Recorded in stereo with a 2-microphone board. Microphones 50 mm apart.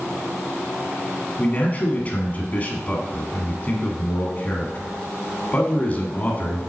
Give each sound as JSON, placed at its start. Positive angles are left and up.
{"t": 1.4, "sound": "a man speaking", "side_deg": 30, "distance_m": 1.2}